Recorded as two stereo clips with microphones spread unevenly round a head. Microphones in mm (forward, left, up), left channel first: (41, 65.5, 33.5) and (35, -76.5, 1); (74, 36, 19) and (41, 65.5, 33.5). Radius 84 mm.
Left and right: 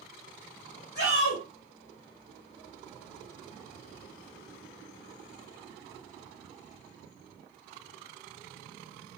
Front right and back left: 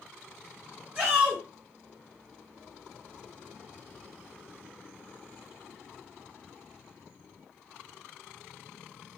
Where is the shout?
90° left, 1.6 m.